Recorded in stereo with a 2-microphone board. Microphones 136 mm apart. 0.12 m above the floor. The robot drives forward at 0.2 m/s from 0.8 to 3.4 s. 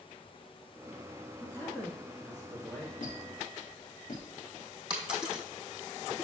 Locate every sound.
1.4 s a man speaking: 20° left (ahead or behind), 1.5 m
3.0 s a squeak: 75° left (ahead or behind), 4 m
4.9 s a dropped coin: 5° right (ahead or behind), 2 m